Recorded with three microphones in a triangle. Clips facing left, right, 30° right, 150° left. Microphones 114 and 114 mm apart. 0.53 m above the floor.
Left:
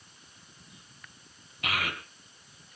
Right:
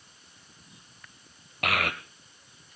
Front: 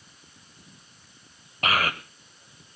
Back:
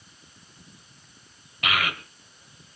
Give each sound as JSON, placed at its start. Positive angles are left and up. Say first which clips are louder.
{"t": 1.6, "sound": "a child speaking", "louder": "right 4 dB, front 2 dB", "azimuth_deg": -80, "distance_m": 2.0}